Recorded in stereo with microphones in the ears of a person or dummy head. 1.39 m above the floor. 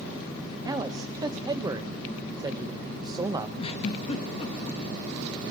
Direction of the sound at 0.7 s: 20° right (ahead or behind).